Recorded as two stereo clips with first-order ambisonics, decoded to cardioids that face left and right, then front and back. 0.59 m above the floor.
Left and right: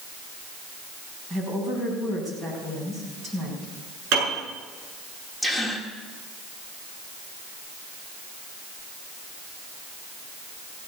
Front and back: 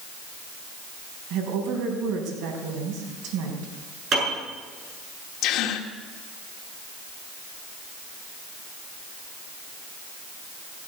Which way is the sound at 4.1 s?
120° right.